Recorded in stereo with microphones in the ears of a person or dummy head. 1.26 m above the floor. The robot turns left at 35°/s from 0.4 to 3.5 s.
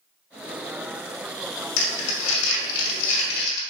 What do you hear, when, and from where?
1.8 s crumpling: 115° left, 2 m; by 3.6 s 55° left, 2 m